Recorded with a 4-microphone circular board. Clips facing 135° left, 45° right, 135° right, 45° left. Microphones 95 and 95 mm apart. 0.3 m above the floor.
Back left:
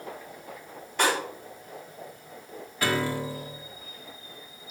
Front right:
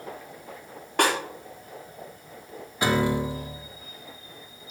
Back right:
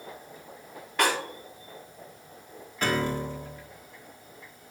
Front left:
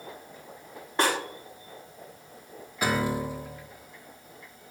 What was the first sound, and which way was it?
A snare drum, 15° right.